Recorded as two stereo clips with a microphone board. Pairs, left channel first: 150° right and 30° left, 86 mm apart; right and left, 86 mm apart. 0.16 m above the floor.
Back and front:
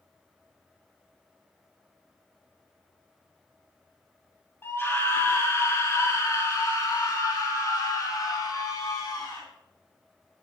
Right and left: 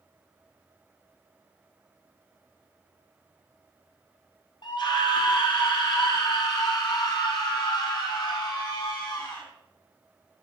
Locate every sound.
4.6 s a scream: 90° right, 4 m; by 9.4 s 115° right, 6 m